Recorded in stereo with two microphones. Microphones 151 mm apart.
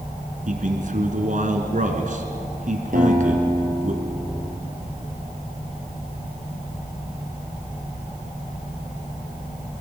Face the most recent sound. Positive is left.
turn(degrees=-65)  # may be behind; listen again after turning